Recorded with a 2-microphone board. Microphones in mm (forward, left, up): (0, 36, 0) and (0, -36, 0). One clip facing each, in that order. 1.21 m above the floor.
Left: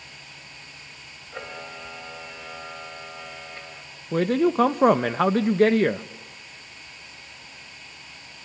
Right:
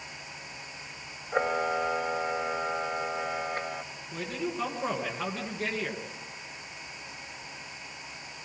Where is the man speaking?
65° left (ahead or behind), 0.8 m.